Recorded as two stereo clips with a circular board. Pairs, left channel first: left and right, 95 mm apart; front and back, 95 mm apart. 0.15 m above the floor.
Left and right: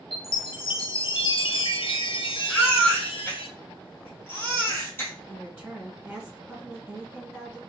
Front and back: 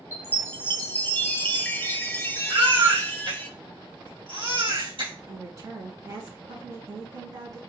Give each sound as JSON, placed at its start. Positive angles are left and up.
{"t": 0.1, "sound": "a chime", "azimuth_deg": 65, "distance_m": 0.6}
{"t": 2.5, "sound": "a baby crying", "azimuth_deg": 155, "distance_m": 2.5}
{"t": 5.3, "sound": "a woman speaking", "azimuth_deg": -160, "distance_m": 2.0}